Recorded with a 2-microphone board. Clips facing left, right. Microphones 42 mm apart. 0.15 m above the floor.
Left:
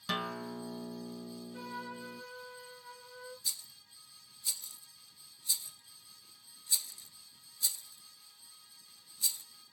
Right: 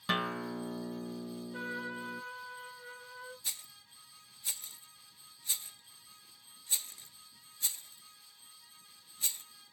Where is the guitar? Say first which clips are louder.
Right 3 dB; 25° right (ahead or behind), 0.6 m.